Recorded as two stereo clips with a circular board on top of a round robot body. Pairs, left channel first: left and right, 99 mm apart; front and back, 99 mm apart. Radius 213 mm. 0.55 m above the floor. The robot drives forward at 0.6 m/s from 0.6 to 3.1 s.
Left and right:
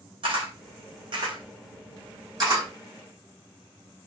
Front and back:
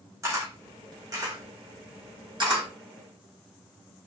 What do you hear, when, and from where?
0.2 s a camera shutter: 120° right, 2 m; by 2.7 s 140° right, 3 m